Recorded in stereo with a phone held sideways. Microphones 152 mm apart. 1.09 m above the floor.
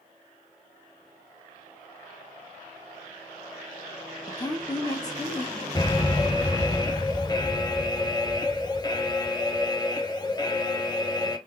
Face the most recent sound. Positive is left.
turn(degrees=25)  # may be behind; listen again after turning